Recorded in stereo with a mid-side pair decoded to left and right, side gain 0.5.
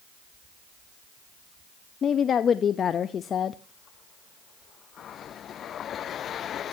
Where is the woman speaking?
45° left, 0.7 m.